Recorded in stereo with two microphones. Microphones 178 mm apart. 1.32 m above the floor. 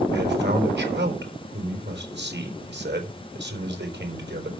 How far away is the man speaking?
About 4 m.